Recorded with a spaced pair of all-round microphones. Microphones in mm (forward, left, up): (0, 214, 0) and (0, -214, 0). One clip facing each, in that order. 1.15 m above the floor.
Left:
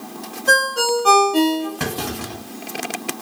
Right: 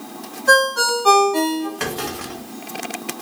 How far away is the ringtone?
About 1.1 m.